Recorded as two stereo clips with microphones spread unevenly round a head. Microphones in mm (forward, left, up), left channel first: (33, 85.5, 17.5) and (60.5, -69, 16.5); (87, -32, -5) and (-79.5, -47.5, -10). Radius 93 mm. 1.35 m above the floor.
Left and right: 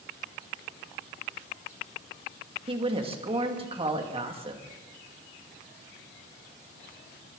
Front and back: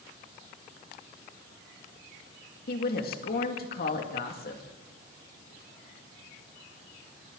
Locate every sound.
2.7 s a woman speaking: 25° right, 2.5 m